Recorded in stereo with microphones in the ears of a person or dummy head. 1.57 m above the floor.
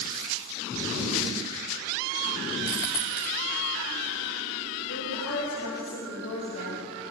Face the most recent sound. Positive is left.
turn(degrees=75)  # may be behind; listen again after turning